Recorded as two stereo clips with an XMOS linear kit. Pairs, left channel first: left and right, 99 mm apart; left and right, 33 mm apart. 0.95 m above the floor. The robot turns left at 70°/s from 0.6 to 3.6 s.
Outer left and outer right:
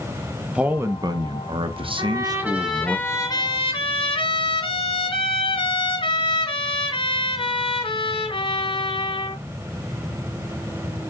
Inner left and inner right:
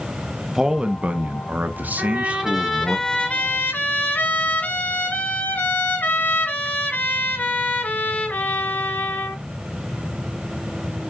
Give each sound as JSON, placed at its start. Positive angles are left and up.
{"t": 0.6, "sound": "a man speaking", "azimuth_deg": -15, "distance_m": 1.1}
{"t": 2.0, "sound": "a trumpet", "azimuth_deg": -130, "distance_m": 5.0}